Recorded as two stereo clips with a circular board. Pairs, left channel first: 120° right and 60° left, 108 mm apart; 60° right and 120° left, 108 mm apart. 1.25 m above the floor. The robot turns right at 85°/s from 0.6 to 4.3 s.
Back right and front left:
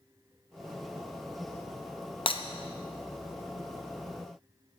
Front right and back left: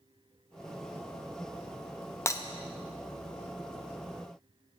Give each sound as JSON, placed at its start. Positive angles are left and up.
{"t": 2.3, "sound": "breaking glass", "azimuth_deg": -120, "distance_m": 0.7}